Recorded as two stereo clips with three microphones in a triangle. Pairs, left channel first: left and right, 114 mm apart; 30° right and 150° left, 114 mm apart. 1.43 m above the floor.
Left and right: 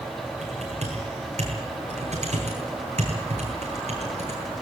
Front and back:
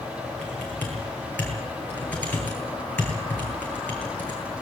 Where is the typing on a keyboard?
105° right, 9 m.